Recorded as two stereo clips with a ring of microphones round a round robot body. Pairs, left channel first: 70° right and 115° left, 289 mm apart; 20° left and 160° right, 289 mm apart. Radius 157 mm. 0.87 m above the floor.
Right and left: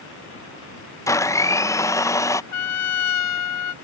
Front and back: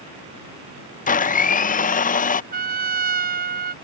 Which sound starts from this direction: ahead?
A blender, at 1.1 s.